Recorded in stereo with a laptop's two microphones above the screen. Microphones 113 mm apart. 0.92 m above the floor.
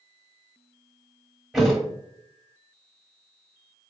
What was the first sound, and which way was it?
A thud, 5° right (ahead or behind).